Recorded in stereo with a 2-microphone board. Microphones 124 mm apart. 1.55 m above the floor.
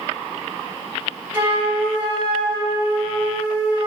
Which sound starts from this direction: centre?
A flute, at 1.3 s.